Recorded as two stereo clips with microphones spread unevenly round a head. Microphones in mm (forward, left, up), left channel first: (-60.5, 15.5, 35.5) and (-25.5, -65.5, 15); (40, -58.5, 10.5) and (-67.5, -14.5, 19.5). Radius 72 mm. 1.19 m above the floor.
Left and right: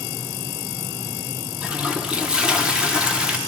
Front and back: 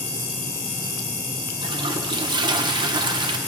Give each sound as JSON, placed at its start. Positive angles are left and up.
{"t": 1.6, "sound": "a toilet flushing", "azimuth_deg": -150, "distance_m": 0.7}